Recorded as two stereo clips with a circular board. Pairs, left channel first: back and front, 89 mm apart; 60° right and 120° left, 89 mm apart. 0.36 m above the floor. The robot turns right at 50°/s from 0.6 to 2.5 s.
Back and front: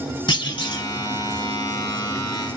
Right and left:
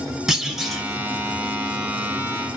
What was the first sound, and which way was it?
A clunk, 155° right.